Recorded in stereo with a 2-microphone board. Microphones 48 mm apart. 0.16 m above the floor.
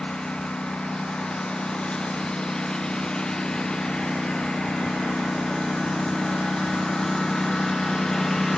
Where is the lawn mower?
20° left (ahead or behind); by 8.6 s 10° left (ahead or behind).